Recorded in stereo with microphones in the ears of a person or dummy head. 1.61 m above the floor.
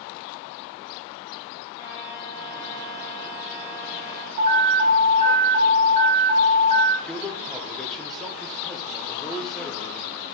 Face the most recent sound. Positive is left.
turn(degrees=5)  # may be behind; listen again after turning